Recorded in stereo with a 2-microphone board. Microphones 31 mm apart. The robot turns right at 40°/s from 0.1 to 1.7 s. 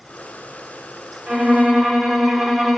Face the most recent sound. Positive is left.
turn(degrees=-35)  # may be behind; listen again after turning